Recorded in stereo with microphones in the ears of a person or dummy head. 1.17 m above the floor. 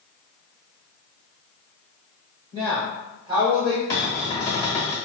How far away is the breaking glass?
No breaking glass in this recording.